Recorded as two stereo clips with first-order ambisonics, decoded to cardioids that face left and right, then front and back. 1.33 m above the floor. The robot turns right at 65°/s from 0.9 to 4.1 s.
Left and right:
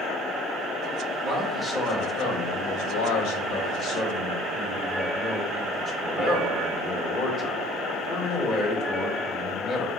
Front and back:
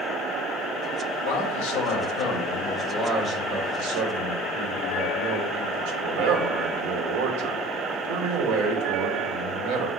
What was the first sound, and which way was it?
A man speaking, 35° right.